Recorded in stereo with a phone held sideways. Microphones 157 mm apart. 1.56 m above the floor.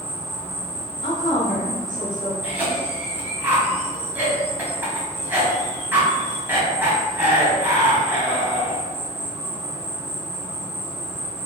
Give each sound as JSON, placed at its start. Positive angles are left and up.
{"t": 0.0, "sound": "an insect", "side_deg": 15, "distance_m": 2.0}
{"t": 1.0, "sound": "a woman speaking", "side_deg": 55, "distance_m": 1.5}
{"t": 2.4, "sound": "a cough", "side_deg": -15, "distance_m": 1.4}